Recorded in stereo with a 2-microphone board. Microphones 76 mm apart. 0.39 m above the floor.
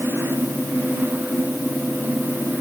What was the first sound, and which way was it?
Only background noise.